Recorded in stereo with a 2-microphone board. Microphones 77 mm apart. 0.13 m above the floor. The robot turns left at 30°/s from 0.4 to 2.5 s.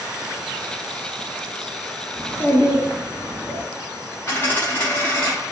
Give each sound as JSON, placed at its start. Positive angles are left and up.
{"t": 2.2, "sound": "a child speaking", "side_deg": 30, "distance_m": 0.9}
{"t": 4.3, "sound": "a dropped coin", "side_deg": 30, "distance_m": 1.0}